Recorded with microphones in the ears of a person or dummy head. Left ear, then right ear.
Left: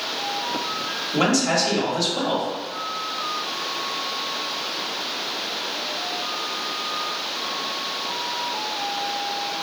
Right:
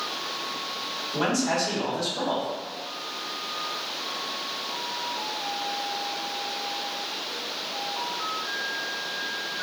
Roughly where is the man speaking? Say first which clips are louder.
Left 5 dB; left.